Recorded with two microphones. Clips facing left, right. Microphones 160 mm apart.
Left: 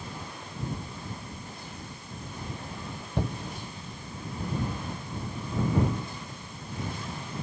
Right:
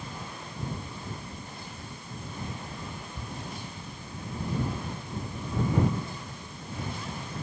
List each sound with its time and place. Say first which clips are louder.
3.2 s a shout: left 9 dB; 75° left (ahead or behind)